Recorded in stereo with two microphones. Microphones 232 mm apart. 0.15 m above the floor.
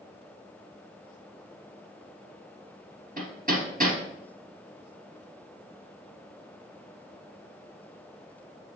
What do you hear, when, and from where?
3.2 s hammering: 35° right (ahead or behind), 2.5 m